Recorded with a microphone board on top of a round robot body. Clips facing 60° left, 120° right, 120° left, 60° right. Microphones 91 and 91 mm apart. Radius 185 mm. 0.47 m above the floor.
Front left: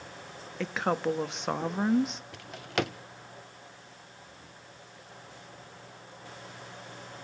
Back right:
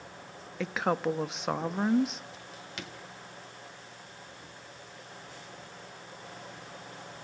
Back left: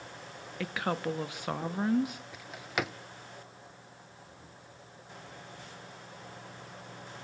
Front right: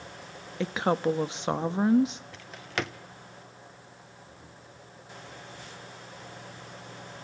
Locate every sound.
0.6 s a woman speaking: 35° right, 1.3 m
2.3 s a drawer: 35° left, 0.9 m